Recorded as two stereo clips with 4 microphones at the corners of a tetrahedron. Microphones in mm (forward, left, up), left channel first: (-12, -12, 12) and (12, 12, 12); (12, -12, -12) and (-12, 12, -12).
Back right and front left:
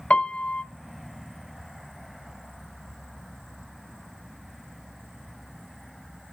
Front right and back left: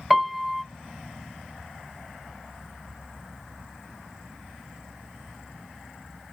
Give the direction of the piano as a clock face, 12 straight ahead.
5 o'clock.